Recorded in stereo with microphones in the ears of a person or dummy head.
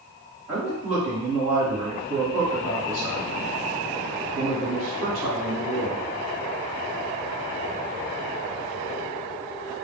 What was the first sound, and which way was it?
A man speaking, 35° right (ahead or behind).